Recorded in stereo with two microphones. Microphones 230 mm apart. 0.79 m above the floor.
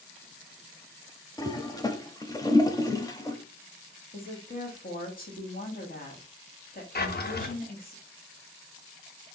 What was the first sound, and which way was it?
A toilet flushing, 15° left (ahead or behind).